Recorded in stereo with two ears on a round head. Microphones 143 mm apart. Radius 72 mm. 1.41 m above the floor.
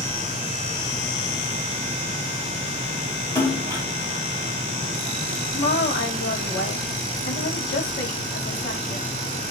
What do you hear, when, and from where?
3.4 s a splash: 15° left (ahead or behind), 2 m
5.5 s a woman speaking: 70° left (ahead or behind), 2 m